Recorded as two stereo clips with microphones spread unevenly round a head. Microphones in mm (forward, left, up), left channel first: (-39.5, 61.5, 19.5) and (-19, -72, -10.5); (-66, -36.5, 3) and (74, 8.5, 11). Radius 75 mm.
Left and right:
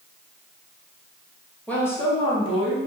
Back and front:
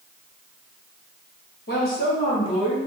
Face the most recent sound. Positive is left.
turn(degrees=125)